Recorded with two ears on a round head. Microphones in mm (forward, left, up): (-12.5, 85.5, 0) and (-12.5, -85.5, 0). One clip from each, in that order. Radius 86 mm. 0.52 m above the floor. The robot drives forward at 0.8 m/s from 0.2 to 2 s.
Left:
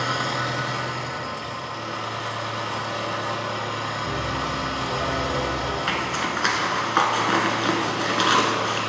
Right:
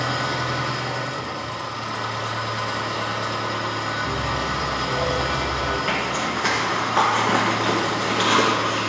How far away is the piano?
About 1.0 m.